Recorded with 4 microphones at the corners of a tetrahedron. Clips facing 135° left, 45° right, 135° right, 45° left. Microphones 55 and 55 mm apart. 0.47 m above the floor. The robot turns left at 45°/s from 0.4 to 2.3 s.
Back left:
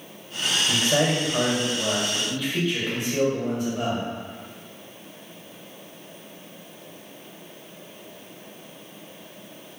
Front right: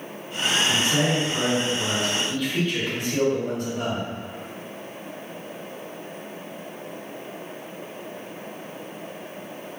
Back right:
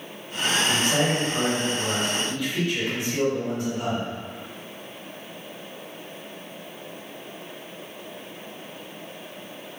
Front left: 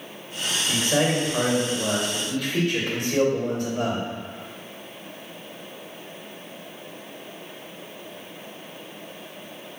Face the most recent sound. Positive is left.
turn(degrees=45)